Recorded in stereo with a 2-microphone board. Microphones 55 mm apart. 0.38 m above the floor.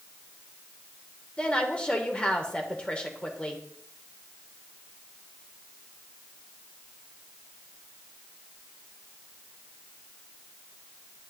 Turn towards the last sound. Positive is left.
turn(degrees=20)  # may be behind; listen again after turning